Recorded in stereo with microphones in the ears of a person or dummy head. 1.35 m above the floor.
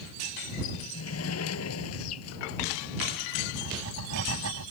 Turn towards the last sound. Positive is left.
turn(degrees=-85)